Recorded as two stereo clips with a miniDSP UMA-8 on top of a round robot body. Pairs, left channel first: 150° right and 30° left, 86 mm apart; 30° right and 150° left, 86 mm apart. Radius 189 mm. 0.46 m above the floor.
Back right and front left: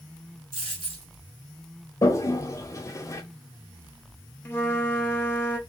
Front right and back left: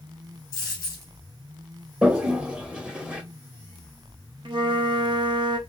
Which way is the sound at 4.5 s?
150° left.